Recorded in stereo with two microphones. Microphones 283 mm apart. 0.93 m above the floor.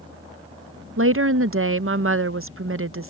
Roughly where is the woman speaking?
Right.